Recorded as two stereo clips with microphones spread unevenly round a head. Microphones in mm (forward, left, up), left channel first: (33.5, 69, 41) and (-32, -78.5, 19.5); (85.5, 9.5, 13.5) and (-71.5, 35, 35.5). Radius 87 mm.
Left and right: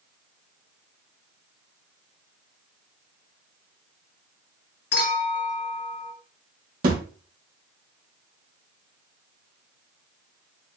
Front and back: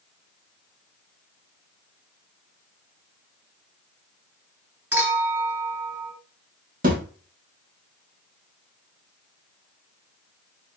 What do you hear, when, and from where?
4.9 s a clink: 90° left, 3.5 m
6.8 s a thud: 155° right, 1.5 m